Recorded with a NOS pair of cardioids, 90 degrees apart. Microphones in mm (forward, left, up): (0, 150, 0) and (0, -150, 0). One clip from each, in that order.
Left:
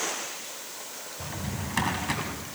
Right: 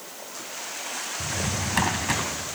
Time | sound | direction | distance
1.2 | a drawer | 30° right | 4 m